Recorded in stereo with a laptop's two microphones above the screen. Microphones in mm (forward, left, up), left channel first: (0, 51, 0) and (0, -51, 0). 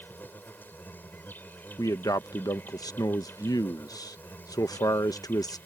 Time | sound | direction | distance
0.0 | an insect | 20° left (ahead or behind) | ?
1.8 | a man speaking | 35° left (ahead or behind) | ?